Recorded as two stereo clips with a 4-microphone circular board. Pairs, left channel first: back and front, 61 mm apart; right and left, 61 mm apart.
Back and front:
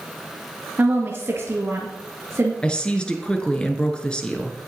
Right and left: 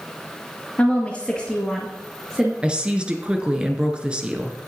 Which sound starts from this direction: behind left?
A woman speaking, at 2.6 s.